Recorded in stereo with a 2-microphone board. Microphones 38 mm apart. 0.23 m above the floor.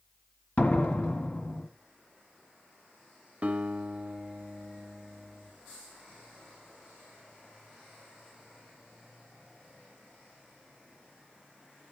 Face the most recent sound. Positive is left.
turn(degrees=-30)  # may be behind; listen again after turning